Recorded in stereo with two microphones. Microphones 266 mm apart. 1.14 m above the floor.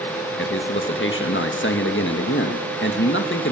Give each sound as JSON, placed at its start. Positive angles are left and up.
{"t": 0.4, "sound": "a man speaking", "side_deg": 45, "distance_m": 1.8}